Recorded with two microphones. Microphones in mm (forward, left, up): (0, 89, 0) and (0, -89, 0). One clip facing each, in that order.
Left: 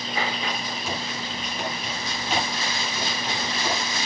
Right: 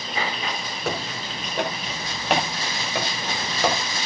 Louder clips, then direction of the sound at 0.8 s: Right 3 dB; 60° right (ahead or behind).